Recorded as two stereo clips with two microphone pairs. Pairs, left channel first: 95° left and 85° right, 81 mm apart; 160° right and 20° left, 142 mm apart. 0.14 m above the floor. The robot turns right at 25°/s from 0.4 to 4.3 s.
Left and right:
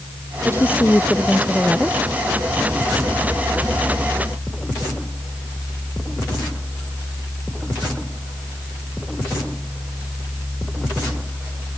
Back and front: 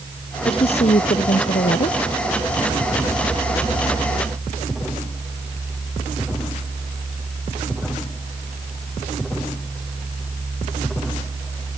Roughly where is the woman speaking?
Behind left.